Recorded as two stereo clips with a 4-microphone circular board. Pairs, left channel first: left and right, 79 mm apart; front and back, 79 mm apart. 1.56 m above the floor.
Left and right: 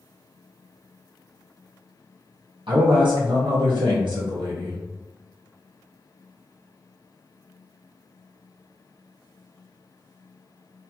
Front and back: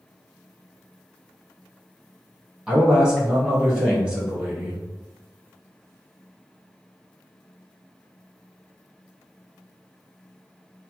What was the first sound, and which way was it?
A man speaking, 105° right.